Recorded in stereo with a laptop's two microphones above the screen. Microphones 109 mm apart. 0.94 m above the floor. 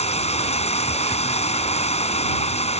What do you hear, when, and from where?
0.0 s running water: 90° left